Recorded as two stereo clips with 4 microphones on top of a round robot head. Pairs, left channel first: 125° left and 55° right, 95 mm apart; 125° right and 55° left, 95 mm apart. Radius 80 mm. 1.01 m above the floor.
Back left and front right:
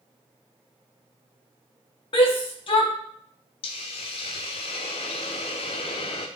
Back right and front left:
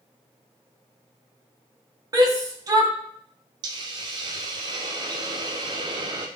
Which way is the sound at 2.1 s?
105° left.